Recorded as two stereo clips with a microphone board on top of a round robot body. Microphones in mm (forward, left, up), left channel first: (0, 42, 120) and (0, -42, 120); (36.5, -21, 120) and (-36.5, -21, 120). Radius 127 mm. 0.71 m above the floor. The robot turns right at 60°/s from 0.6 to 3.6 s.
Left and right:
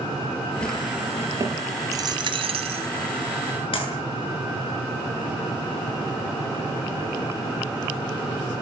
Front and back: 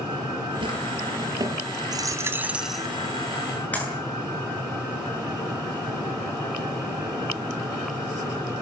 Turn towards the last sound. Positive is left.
turn(degrees=70)